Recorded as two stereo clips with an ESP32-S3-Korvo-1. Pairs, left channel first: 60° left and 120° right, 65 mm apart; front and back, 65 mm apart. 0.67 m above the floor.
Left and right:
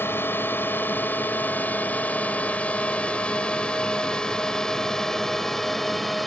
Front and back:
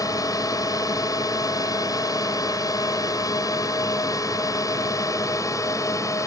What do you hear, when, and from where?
0.0 s a drone: 10° left; by 6.3 s 30° right